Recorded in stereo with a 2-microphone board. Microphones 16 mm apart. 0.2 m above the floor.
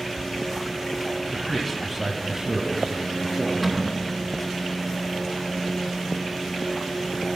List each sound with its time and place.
1.3 s a man speaking: 20° left (ahead or behind), 1.2 m; by 3.5 s 45° right (ahead or behind), 2 m
3.6 s a cupboard door: 5° left (ahead or behind), 1.2 m